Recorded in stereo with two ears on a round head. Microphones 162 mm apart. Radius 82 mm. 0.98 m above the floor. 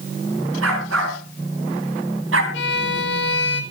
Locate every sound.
0.6 s a dog barking: 85° right, 5 m
2.5 s a violin: 65° left (ahead or behind), 1.7 m